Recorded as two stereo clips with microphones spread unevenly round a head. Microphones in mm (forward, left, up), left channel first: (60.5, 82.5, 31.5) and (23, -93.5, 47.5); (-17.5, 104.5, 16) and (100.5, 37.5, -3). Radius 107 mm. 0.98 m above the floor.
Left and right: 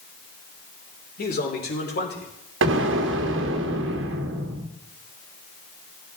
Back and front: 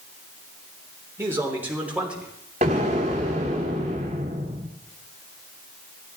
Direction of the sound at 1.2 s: 45° left.